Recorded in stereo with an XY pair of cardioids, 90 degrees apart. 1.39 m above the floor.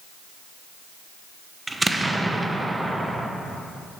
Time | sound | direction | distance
1.7 | an explosion | 15° right | 0.8 m